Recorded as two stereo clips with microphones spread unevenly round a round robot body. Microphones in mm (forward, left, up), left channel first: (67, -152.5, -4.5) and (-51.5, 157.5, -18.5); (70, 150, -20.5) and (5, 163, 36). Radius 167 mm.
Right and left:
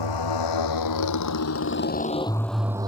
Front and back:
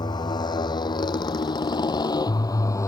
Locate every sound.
0.0 s a motorcycle: 50° right; by 2.9 s 35° left